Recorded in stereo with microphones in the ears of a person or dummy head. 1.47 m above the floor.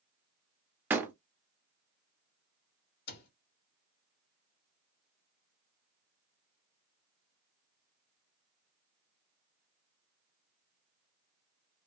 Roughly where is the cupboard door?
Left.